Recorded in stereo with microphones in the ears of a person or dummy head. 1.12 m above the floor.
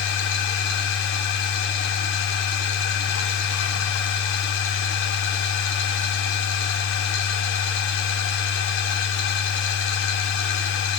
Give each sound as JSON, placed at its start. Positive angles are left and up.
{"t": 0.0, "sound": "a machine running", "side_deg": 60, "distance_m": 0.8}